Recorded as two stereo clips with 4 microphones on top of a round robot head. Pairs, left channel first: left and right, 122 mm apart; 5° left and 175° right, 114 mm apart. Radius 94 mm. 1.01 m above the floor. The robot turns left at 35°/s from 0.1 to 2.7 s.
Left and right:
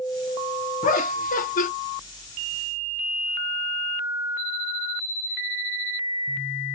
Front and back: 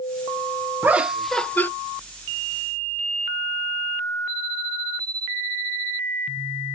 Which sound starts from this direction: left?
Laughter, at 0.8 s.